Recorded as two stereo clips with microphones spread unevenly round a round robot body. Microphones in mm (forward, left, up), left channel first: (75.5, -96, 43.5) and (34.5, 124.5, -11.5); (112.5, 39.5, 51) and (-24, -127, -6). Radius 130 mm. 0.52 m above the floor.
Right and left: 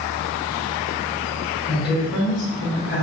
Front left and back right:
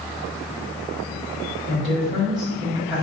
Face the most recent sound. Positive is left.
turn(degrees=-65)